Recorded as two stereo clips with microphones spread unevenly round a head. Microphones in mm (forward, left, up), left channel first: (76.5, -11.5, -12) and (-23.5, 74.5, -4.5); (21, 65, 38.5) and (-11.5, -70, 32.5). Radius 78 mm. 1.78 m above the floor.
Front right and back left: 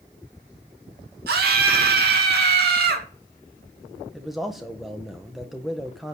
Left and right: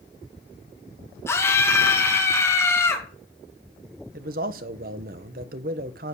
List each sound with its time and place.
1.3 s a scream: 150° left, 2.5 m
4.1 s a man speaking: 130° right, 1.3 m